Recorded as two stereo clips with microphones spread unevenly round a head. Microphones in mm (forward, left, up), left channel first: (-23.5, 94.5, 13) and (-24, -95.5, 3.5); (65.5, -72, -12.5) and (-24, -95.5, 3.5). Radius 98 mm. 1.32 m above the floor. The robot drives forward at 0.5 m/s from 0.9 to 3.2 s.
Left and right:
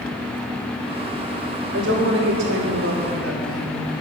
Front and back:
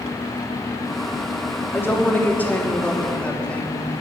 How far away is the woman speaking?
About 3 m.